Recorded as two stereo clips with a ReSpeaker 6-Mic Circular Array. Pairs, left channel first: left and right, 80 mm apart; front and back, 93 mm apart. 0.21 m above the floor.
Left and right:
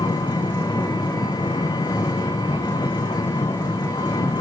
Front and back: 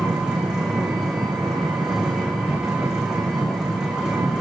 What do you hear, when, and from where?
0.0 s an engine running: 95° left, 4.5 m